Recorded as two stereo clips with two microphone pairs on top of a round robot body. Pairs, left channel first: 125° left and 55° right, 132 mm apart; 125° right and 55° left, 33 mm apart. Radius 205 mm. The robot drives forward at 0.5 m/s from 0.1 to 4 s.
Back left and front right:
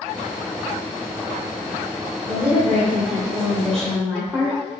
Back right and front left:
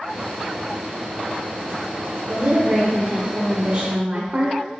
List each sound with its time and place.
2.3 s a woman speaking: 25° left, 2 m; by 4.6 s 45° left, 1.5 m